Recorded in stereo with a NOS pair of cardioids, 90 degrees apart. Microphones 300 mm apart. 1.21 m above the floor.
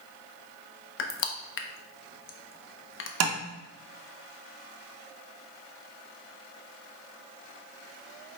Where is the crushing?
45° left, 0.7 m.